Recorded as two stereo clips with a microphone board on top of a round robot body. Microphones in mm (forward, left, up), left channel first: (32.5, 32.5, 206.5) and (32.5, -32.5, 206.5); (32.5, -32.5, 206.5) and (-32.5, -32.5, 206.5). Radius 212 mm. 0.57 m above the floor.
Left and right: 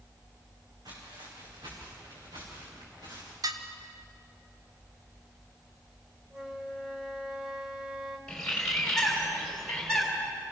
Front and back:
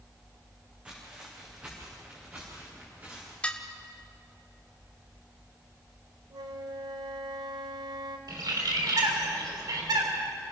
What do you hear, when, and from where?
0.8 s footsteps: 105° right, 4 m; by 3.3 s 115° right, 7.5 m
3.4 s dishes clattering: 70° right, 1.4 m
6.3 s a flute: 170° right, 0.8 m
8.3 s a bird: 170° left, 3.5 m